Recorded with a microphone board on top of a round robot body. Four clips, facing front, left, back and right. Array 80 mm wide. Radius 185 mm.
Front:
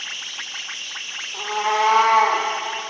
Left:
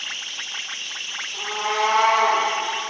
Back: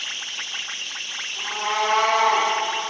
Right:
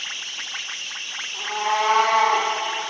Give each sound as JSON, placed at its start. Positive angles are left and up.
{"t": 1.3, "sound": "a cat meowing", "azimuth_deg": 0, "distance_m": 1.7}